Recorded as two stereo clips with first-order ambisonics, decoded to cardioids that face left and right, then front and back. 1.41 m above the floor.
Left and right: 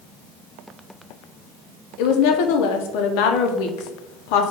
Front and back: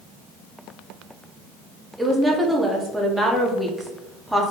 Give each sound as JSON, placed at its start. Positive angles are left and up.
{"t": 2.0, "sound": "a woman speaking", "azimuth_deg": 95, "distance_m": 0.6}